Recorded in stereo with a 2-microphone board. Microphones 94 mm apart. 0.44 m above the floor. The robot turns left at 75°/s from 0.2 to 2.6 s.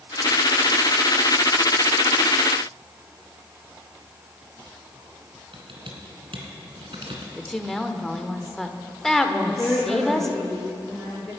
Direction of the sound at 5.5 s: 75° right (ahead or behind).